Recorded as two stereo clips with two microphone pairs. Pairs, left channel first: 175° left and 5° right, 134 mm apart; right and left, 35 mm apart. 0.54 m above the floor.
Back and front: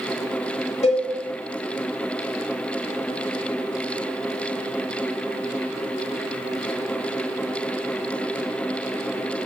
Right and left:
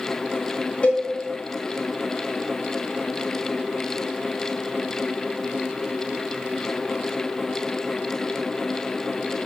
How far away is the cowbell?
About 1.4 m.